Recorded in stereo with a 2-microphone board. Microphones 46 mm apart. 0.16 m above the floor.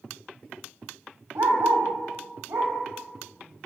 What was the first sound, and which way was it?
A dog barking, 65° right (ahead or behind).